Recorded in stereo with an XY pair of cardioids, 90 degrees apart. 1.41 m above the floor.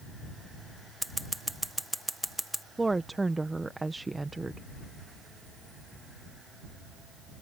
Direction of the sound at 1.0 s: 5° right.